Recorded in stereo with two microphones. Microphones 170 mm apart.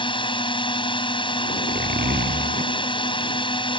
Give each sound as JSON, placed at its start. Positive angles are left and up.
{"t": 0.0, "sound": "a drone", "side_deg": 30}
{"t": 1.5, "sound": "a zipper", "side_deg": -65}